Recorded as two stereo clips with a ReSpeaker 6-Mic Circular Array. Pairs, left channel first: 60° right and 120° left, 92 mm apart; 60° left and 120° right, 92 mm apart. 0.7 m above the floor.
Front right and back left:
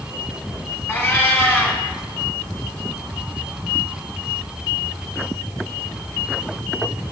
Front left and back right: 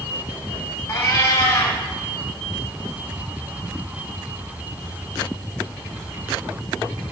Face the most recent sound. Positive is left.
turn(degrees=5)